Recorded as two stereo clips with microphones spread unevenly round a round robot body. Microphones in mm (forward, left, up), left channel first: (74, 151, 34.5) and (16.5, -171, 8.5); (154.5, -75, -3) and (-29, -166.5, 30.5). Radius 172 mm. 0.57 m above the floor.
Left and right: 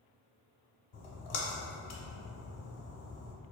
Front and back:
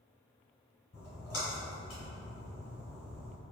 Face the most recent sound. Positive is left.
turn(degrees=95)